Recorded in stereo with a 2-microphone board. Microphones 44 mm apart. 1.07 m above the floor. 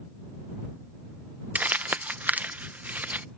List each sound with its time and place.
1.6 s crumpling: 35° right (ahead or behind)